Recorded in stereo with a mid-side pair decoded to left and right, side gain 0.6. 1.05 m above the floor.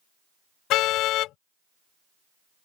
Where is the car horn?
65° left.